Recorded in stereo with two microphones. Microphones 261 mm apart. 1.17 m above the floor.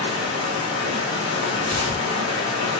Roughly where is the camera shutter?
No camera shutter in this recording.